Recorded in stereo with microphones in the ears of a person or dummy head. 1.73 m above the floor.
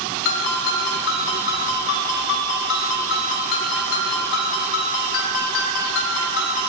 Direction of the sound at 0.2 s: 60° left (ahead or behind).